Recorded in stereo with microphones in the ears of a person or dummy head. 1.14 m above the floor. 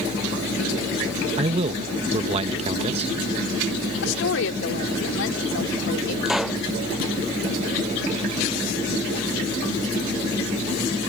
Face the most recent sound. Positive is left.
turn(degrees=-5)  # may be behind; listen again after turning